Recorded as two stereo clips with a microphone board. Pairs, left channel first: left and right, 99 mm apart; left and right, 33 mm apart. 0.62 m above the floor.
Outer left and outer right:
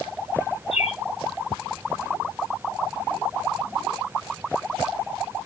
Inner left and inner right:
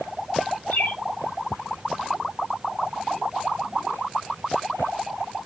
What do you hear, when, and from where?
0.7 s a bird: 75° left (ahead or behind), 0.8 m